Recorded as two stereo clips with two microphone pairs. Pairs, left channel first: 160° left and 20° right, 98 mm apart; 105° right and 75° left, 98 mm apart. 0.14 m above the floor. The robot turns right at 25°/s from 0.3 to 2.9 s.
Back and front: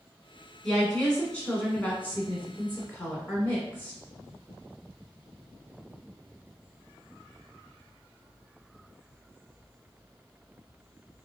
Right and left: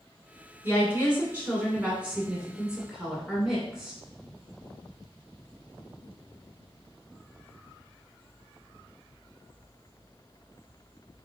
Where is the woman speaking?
95° left, 1.6 m; by 4.0 s 150° left, 1.6 m.